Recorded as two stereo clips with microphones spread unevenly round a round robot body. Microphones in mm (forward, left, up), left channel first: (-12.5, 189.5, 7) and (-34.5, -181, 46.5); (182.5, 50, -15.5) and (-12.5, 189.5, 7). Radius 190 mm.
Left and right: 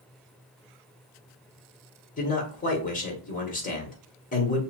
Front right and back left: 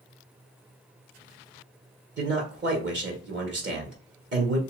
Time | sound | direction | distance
2.2 | a man speaking | 135° left | 1.2 m